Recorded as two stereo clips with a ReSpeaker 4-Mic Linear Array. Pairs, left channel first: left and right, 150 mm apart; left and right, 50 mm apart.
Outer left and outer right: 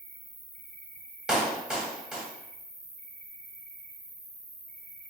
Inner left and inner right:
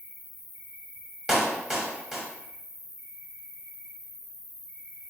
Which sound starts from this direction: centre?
A clap, at 1.3 s.